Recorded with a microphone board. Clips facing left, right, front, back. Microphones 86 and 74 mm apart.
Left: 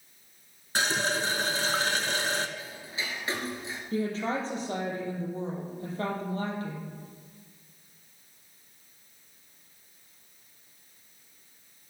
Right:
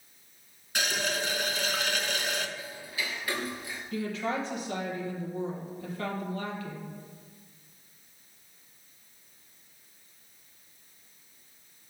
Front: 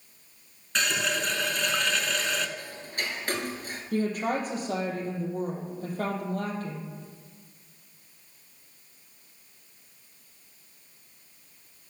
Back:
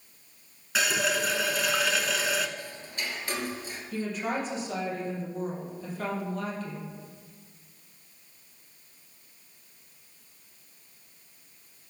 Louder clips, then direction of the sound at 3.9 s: Left 2 dB, front 4 dB; 35° left.